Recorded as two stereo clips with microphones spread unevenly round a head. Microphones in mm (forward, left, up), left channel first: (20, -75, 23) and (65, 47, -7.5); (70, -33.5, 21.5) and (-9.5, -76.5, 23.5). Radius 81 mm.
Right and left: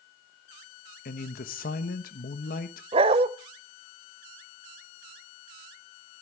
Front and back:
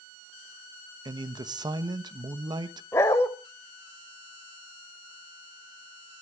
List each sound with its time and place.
1.1 s a man speaking: 120° right, 1.1 m
2.9 s a dog barking: 60° left, 0.7 m